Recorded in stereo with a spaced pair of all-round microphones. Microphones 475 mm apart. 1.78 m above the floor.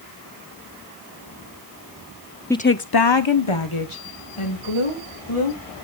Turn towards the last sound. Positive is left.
turn(degrees=75)  # may be behind; listen again after turning